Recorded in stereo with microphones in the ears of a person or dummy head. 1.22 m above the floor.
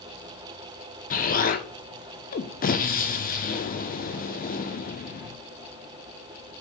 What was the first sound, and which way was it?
An explosion, 45° left (ahead or behind).